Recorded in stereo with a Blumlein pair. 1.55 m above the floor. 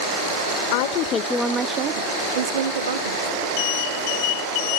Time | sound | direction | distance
0.7 | a woman speaking | 50° left | 0.7 m